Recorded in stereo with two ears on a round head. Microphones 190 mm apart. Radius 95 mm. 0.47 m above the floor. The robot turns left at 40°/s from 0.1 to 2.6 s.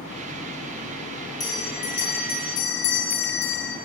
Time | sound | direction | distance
1.4 | a bell | 160° left | 4 m